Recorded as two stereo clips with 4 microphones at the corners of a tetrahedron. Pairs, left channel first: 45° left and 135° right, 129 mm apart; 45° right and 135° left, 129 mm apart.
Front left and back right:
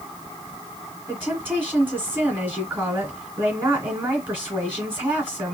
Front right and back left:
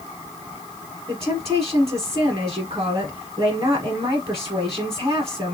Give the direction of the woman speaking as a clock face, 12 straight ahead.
7 o'clock.